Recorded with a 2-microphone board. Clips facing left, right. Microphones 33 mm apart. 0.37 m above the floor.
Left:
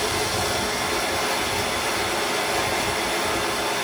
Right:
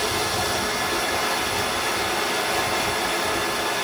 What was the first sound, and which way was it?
Running water, 15° right (ahead or behind).